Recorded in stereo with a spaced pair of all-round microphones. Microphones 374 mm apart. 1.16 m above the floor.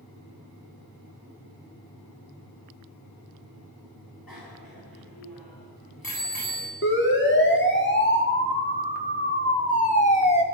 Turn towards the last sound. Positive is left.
turn(degrees=15)  # may be behind; listen again after turning